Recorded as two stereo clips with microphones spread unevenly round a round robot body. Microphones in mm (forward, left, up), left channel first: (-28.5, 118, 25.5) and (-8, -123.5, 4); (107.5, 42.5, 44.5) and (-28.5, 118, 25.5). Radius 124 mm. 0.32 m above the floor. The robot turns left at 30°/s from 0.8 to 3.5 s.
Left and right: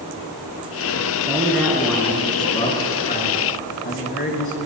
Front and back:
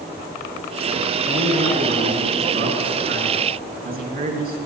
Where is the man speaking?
160° right, 4.5 m; by 4.6 s 130° left, 4.5 m.